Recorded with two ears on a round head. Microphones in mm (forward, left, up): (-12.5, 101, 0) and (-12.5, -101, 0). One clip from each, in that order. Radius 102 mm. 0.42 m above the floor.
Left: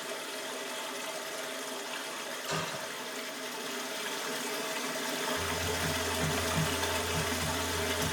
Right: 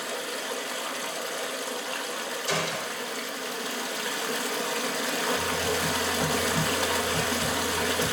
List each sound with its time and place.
0.0 s running water: 15° right (ahead or behind), 1.0 m
2.5 s a gunshot: 75° right (ahead or behind), 1.2 m
5.4 s typing on a keyboard: 10° right (ahead or behind), 2 m